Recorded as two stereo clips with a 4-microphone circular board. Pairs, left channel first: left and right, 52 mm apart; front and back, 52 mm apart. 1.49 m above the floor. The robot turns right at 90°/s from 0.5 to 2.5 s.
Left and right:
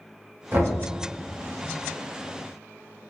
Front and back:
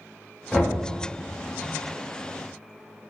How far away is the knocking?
About 0.9 m.